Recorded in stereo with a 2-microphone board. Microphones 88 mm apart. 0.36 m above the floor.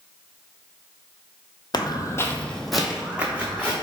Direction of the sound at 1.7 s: 55° left (ahead or behind).